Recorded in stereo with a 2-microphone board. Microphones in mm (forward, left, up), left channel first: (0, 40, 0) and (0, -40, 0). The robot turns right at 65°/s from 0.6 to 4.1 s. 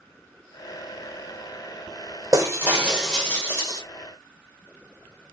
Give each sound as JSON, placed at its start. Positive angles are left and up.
{"t": 2.3, "sound": "breaking glass", "azimuth_deg": -45, "distance_m": 1.6}